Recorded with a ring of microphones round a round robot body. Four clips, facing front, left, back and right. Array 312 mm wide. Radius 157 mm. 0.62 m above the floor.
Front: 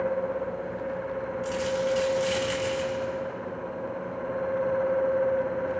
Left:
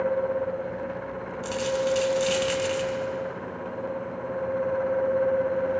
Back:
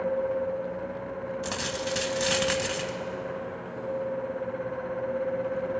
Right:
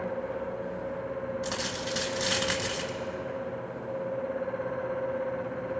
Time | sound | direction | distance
1.4 | a dropped coin | 170° right | 2 m